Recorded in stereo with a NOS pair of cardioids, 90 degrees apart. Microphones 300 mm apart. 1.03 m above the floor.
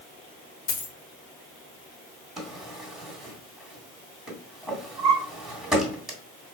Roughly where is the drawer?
Ahead.